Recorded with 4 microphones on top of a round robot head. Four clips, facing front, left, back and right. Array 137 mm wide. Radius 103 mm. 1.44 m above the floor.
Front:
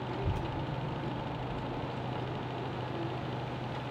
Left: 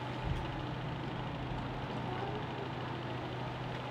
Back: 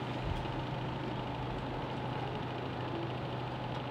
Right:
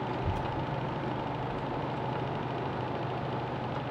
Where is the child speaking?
65° right, 0.9 m; by 3.8 s 105° left, 1.6 m.